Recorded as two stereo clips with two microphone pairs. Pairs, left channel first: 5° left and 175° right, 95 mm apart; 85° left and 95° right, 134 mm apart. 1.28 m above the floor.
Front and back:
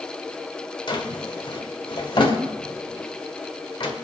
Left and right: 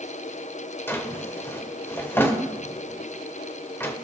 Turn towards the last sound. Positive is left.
turn(degrees=15)